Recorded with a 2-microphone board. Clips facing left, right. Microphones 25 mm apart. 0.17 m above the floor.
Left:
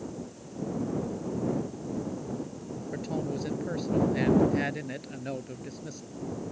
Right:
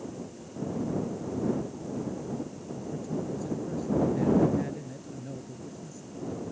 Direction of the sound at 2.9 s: 65° left (ahead or behind).